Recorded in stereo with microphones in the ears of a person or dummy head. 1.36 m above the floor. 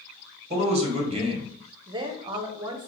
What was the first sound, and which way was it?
A man speaking, 30° right (ahead or behind).